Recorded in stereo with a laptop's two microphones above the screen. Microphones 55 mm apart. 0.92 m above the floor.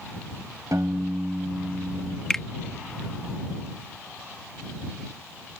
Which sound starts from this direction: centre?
A finger snap, at 2.3 s.